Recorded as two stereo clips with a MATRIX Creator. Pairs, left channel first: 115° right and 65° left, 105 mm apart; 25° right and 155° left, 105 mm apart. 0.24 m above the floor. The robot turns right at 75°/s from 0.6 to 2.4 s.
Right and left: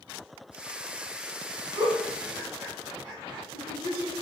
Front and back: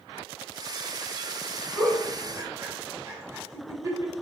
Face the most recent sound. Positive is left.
turn(degrees=110)